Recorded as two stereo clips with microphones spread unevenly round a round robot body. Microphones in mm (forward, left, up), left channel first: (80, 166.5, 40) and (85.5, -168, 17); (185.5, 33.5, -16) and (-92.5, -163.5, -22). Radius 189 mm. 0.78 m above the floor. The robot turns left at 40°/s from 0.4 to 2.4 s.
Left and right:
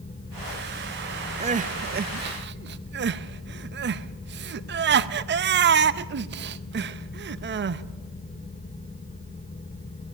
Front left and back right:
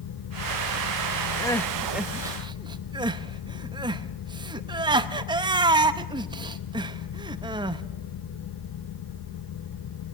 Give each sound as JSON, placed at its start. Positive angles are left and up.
{"t": 1.4, "sound": "crying", "azimuth_deg": -40, "distance_m": 0.6}